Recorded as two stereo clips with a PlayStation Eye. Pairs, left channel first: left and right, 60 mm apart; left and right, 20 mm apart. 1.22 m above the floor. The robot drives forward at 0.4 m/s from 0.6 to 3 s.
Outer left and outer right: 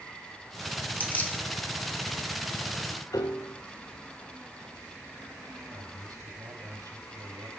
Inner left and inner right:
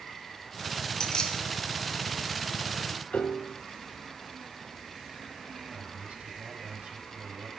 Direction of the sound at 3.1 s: 80° left.